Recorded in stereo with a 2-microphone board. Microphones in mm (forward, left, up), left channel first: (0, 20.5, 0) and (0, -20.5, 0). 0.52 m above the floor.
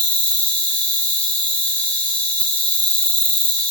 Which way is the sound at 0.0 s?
35° left (ahead or behind).